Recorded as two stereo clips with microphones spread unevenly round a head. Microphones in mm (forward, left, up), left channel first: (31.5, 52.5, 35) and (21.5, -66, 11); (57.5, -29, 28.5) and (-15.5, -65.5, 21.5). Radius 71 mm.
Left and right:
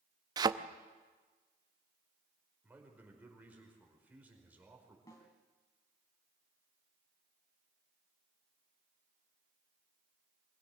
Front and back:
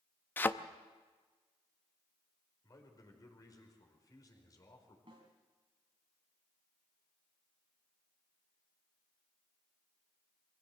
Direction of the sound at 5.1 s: 150° left.